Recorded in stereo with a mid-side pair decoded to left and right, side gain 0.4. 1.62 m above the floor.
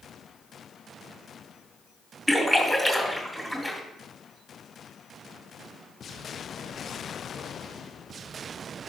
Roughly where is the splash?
Ahead.